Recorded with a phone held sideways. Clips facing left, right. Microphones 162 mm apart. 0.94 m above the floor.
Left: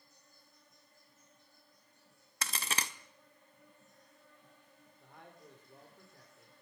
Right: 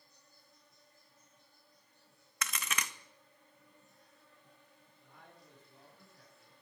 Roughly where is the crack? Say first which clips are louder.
Left 1 dB; left.